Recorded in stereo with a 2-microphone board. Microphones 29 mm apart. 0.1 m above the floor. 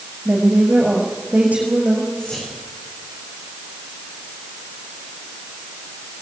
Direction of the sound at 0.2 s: 75° right (ahead or behind).